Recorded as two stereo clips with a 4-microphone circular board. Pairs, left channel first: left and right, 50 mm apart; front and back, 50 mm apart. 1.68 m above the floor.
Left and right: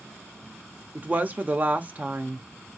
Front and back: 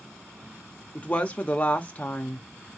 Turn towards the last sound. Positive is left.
turn(degrees=-50)